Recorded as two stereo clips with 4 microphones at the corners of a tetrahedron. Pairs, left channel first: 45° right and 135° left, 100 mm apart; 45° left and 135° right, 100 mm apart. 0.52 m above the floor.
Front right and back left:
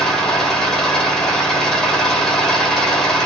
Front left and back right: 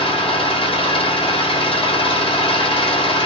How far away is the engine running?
About 1.1 m.